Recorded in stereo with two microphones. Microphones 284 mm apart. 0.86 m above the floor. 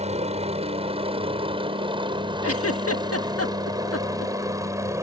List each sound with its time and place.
0.0 s a helicopter: 20° right (ahead or behind); by 5.0 s 10° right (ahead or behind)
2.4 s a giggle: 55° left (ahead or behind)